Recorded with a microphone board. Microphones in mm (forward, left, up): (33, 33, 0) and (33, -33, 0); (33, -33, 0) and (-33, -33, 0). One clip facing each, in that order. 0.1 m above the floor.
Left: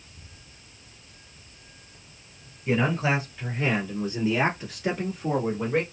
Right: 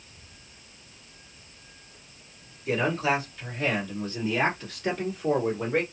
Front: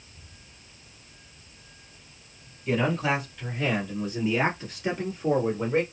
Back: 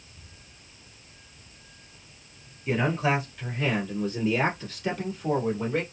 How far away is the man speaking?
About 1.8 m.